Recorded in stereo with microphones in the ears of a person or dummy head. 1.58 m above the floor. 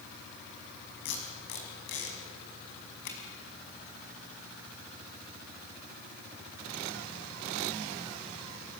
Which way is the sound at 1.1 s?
60° left (ahead or behind).